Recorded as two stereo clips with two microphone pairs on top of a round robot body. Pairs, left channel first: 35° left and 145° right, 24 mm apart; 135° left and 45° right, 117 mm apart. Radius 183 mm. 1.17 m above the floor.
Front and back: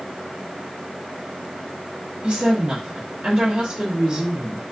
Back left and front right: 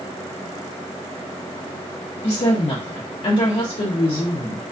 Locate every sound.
2.2 s a woman speaking: 155° left, 1.1 m